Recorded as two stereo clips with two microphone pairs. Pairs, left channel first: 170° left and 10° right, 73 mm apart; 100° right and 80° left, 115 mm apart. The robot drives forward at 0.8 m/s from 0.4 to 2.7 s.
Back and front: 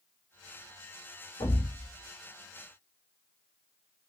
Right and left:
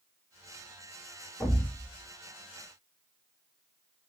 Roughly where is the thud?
Behind.